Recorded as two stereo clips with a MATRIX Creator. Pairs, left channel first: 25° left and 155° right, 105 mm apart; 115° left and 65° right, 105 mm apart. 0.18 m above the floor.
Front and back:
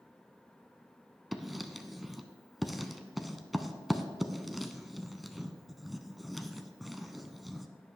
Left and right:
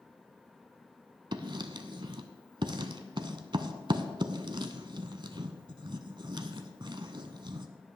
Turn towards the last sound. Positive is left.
turn(degrees=-70)